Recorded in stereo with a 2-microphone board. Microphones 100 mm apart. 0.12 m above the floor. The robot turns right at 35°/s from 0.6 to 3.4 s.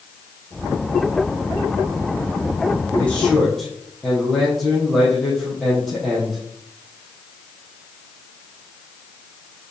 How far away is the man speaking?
About 2.5 m.